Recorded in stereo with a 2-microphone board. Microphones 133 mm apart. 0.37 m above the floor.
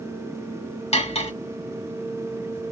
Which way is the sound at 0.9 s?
45° left (ahead or behind).